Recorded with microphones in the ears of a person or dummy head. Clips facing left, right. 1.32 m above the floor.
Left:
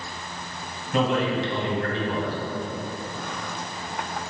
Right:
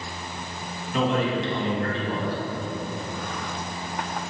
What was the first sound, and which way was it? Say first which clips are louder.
A man speaking: left 1 dB; 55° left (ahead or behind).